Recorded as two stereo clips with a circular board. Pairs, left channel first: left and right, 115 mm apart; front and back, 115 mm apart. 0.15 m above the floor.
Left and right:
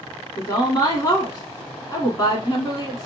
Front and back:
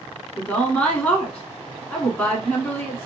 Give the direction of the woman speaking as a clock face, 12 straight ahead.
10 o'clock.